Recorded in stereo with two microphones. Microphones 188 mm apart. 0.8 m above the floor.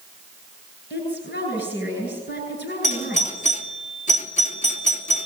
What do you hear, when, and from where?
0.9 s a woman speaking: 60° left (ahead or behind), 10 m
2.8 s a doorbell: 40° left (ahead or behind), 2.5 m